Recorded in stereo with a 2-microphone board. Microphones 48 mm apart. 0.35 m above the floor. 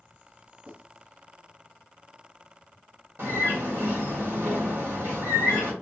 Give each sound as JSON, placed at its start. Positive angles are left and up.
{"t": 0.7, "sound": "writing", "side_deg": -30, "distance_m": 3.5}
{"t": 3.2, "sound": "a bird", "side_deg": -55, "distance_m": 1.9}